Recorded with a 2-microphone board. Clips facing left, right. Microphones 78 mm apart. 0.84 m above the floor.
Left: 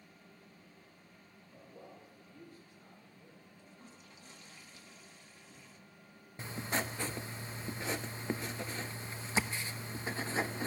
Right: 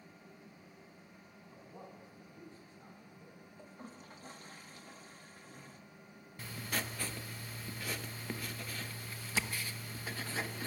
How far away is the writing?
About 0.7 m.